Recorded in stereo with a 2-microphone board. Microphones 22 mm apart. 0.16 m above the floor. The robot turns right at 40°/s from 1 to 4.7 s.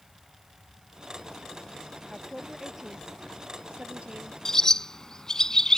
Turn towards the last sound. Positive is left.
turn(degrees=25)  # may be behind; listen again after turning